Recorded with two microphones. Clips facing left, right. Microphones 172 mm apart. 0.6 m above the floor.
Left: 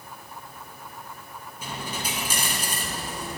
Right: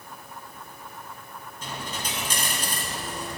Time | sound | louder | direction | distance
1.6 | a dropped coin | left 1 dB | 10° left (ahead or behind) | 1.3 m